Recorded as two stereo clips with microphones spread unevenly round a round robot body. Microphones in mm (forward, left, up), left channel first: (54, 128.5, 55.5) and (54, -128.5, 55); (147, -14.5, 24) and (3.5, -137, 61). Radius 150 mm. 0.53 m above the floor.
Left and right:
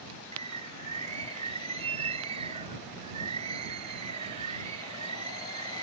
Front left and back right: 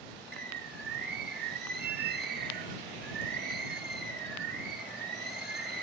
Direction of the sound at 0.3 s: 150° right.